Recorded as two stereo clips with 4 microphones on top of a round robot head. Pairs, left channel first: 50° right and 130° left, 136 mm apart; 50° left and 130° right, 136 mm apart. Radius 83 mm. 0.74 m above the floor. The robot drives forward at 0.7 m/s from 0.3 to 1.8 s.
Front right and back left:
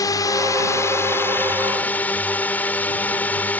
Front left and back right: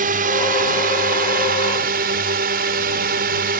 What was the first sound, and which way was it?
A drone, 110° right.